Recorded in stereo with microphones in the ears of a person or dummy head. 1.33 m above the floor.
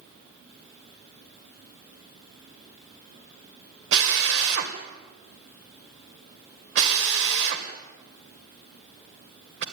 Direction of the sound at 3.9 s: 70° right (ahead or behind).